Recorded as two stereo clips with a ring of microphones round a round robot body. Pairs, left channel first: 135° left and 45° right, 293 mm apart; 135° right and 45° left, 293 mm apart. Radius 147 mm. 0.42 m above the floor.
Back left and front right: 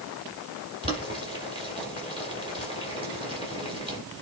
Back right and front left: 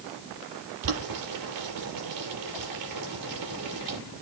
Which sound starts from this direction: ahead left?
Boiling, at 0.8 s.